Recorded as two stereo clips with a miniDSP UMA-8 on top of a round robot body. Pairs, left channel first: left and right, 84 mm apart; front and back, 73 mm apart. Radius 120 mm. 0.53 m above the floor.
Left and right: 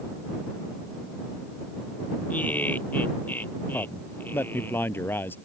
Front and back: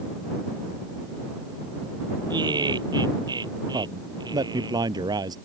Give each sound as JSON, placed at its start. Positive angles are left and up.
{"t": 2.3, "sound": "laughter", "azimuth_deg": 160}
{"t": 3.7, "sound": "a man speaking", "azimuth_deg": 155}